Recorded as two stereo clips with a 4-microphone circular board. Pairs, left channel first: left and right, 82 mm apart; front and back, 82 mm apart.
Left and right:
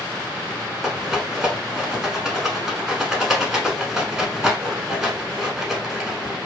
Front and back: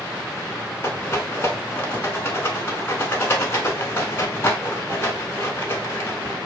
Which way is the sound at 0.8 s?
10° right.